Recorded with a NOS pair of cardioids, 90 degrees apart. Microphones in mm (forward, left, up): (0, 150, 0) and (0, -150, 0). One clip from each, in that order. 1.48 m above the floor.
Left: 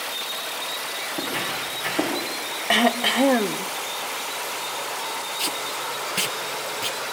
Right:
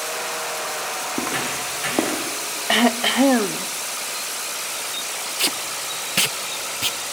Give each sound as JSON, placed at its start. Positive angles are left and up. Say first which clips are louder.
{"t": 1.1, "sound": "footsteps", "louder": "right 1 dB", "azimuth_deg": -60, "distance_m": 6.0}
{"t": 2.7, "sound": "throat clearing", "louder": "right 1 dB", "azimuth_deg": -10, "distance_m": 0.6}
{"t": 5.4, "sound": "tape being pulled", "louder": "right 5 dB", "azimuth_deg": -30, "distance_m": 0.6}